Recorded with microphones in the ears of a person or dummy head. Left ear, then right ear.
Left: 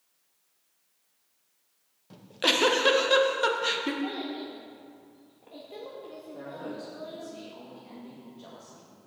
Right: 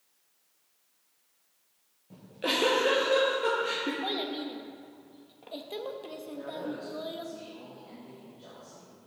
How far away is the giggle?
About 1.4 m.